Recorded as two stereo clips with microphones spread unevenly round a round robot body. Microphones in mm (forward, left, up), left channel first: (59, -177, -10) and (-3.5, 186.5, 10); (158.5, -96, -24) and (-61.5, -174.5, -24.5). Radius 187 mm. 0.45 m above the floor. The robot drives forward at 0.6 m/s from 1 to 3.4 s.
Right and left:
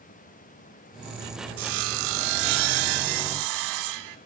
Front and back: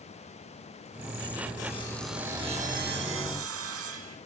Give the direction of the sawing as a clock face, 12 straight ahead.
9 o'clock.